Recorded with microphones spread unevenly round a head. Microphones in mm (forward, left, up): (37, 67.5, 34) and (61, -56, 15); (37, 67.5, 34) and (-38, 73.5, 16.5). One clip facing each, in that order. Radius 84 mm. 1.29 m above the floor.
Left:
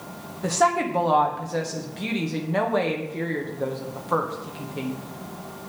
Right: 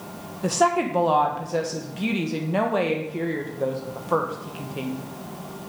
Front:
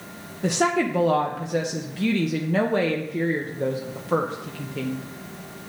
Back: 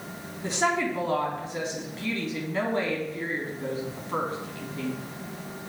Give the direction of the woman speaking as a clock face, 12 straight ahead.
12 o'clock.